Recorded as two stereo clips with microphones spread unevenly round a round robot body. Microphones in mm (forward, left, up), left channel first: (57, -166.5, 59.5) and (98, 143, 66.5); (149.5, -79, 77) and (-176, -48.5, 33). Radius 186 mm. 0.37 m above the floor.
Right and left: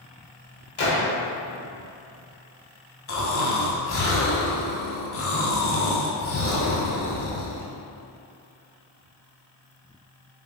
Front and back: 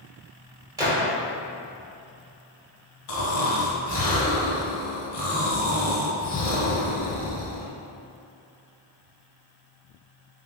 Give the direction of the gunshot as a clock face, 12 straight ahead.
4 o'clock.